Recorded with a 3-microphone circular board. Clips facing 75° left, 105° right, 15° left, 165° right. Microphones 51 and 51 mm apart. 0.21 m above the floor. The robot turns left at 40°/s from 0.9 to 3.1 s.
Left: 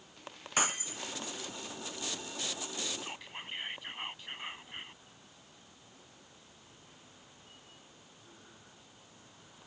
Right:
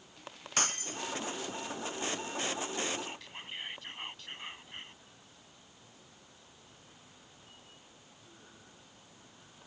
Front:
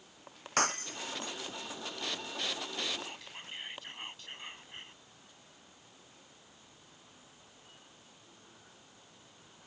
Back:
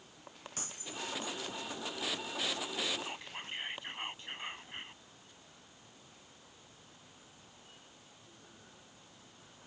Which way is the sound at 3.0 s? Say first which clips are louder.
Even, back 2 dB; 145° left.